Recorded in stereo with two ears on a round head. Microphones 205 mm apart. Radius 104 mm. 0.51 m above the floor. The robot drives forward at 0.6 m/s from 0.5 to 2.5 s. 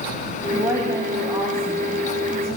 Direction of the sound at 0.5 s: 15° right (ahead or behind).